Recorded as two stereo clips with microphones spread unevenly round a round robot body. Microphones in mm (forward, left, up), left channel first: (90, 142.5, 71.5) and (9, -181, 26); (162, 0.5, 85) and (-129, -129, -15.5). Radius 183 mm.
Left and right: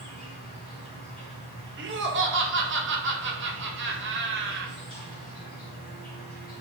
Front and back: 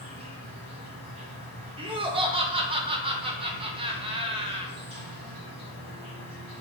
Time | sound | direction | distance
0.0 | an insect | 110° left | 0.9 m
1.8 | laughter | 120° right | 0.7 m